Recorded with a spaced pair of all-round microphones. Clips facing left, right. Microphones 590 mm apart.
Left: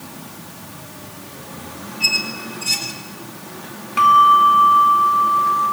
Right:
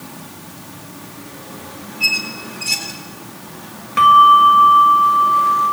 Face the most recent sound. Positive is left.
turn(degrees=-45)  # may be behind; listen again after turning